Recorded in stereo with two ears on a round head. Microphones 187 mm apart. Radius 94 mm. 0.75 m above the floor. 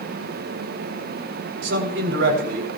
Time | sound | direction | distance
1.6 | a man speaking | 55° right (ahead or behind) | 3.5 m